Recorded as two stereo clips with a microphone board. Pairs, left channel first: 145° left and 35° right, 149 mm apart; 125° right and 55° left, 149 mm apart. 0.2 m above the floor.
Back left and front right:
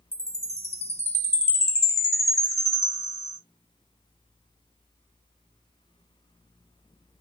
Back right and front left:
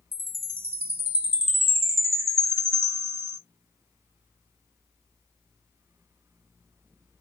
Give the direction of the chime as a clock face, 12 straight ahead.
8 o'clock.